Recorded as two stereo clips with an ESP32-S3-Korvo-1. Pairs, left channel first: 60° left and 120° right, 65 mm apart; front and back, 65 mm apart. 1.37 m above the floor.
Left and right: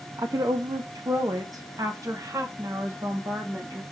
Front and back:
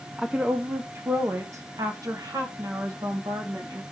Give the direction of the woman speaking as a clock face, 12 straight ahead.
3 o'clock.